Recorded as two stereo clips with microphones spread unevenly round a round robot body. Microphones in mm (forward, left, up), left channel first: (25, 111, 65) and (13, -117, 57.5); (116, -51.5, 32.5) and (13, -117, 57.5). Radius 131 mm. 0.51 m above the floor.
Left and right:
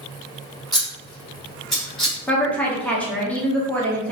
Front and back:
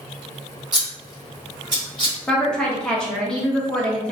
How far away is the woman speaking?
About 0.8 m.